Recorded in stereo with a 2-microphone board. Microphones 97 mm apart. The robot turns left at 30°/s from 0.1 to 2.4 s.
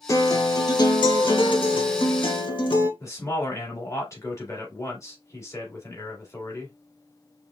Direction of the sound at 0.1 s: 140° left.